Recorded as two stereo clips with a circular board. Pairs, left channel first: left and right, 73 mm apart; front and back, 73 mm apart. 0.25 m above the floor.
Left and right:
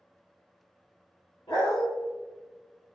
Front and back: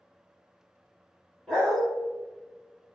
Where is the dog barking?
90° left, 1.2 m.